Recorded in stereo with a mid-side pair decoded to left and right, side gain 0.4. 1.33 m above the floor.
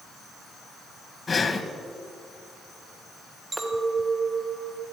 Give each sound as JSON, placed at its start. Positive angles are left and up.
{"t": 1.3, "sound": "breathing", "azimuth_deg": 40, "distance_m": 1.3}
{"t": 3.5, "sound": "a clink", "azimuth_deg": -30, "distance_m": 2.0}